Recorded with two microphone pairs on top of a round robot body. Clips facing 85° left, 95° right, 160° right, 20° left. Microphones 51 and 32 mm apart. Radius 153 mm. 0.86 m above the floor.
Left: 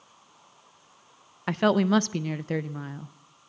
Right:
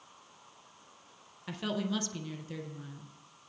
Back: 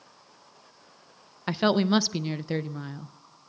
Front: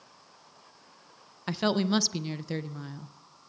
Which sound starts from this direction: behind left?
A woman speaking, at 1.5 s.